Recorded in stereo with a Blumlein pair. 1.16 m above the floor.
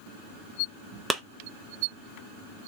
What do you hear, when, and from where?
1.1 s a clap: 10° right, 0.8 m